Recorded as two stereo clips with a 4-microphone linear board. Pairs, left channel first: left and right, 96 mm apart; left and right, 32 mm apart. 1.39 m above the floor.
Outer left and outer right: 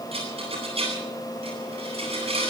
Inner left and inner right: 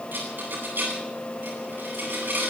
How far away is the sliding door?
I don't hear a sliding door.